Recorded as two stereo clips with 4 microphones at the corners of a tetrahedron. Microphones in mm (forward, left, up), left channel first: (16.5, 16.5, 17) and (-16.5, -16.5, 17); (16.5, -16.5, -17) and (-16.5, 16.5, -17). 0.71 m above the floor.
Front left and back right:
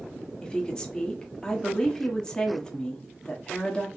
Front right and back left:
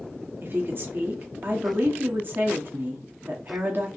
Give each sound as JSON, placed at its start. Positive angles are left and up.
{"t": 0.4, "sound": "a woman speaking", "azimuth_deg": 110, "distance_m": 1.4}